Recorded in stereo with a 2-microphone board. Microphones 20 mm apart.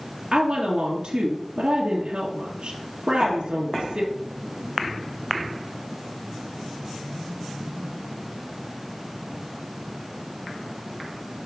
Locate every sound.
0.3 s a woman speaking: 45° right (ahead or behind), 2 m